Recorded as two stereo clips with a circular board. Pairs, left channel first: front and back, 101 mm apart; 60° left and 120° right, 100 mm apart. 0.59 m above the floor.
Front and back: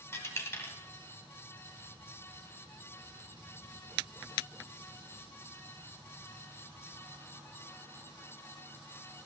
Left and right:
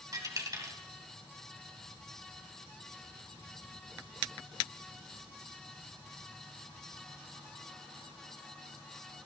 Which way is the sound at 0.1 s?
65° right.